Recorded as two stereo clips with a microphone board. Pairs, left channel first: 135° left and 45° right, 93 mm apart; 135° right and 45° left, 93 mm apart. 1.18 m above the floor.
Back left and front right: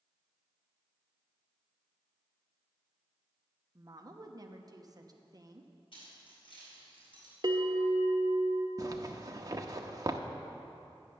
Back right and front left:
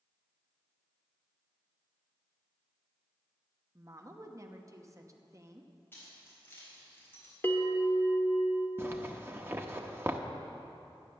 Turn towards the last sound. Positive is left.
turn(degrees=-10)